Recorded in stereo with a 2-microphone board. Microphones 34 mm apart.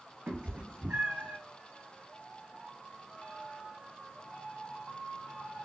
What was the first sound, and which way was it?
A cat meowing, 75° right (ahead or behind).